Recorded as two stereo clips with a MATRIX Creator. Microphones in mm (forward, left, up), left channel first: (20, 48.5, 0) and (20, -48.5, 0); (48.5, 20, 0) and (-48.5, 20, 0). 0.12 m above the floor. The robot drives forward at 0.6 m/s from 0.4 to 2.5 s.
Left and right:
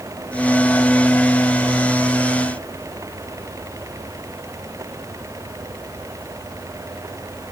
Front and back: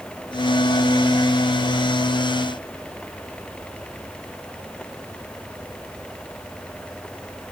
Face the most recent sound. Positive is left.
No sound to turn to.